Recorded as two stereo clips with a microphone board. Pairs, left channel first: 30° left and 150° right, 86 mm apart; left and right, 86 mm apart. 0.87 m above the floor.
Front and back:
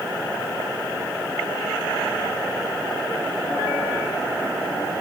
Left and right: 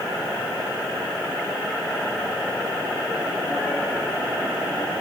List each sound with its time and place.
Only background noise.